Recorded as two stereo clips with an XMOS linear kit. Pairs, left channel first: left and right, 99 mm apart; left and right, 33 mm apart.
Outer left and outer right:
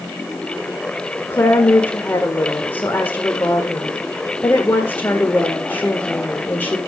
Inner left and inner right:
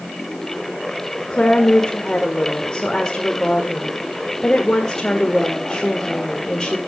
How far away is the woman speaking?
About 1.5 m.